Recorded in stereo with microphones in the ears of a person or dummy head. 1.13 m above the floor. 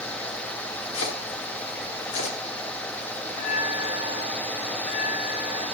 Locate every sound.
0.9 s chopping: 70° left (ahead or behind), 2 m
3.3 s a bell: 60° left (ahead or behind), 6 m